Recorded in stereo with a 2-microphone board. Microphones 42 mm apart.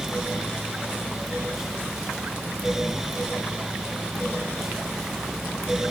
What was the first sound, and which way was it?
Only background noise.